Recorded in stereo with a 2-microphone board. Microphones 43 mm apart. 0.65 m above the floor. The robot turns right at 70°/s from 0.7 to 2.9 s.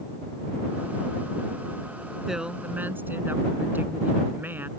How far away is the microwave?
I don't hear a microwave.